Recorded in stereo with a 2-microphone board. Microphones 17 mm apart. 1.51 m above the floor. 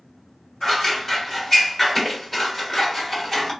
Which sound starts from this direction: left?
Scissors, at 0.6 s.